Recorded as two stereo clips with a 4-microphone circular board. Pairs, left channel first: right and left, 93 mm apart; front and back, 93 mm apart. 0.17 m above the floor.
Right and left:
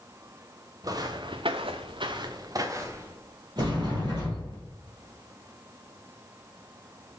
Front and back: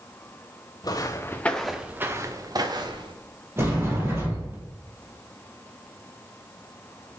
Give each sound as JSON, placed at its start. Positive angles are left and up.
{"t": 0.8, "sound": "footsteps", "azimuth_deg": 45, "distance_m": 1.0}
{"t": 3.6, "sound": "a sliding door", "azimuth_deg": 120, "distance_m": 2.5}